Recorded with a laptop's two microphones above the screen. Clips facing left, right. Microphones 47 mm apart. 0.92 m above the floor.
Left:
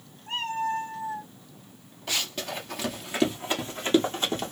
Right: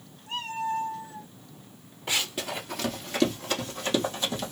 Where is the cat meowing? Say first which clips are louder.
Left 2 dB; 40° left (ahead or behind), 1.2 m; by 1.3 s 30° left (ahead or behind), 1.7 m.